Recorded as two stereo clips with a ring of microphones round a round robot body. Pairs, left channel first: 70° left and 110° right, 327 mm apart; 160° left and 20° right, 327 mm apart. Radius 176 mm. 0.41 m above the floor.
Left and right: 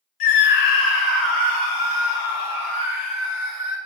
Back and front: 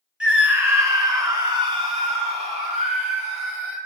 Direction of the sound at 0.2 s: 65° left.